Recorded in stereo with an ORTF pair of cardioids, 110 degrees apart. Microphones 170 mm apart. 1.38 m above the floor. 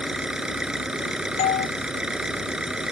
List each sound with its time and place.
0.0 s an engine running: 5° right
1.4 s a doorbell: 45° left